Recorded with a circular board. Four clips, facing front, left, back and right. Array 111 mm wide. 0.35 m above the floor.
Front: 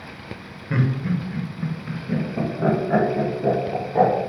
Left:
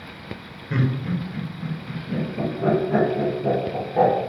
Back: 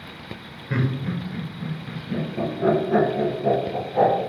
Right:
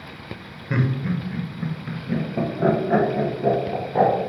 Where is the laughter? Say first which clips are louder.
Right 1 dB, front 2 dB; 85° right, 0.9 m; by 4.1 s 60° right, 2.5 m.